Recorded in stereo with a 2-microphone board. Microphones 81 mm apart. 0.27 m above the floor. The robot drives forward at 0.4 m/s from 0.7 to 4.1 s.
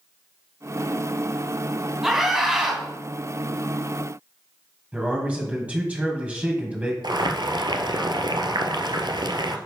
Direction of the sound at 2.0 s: 5° right (ahead or behind).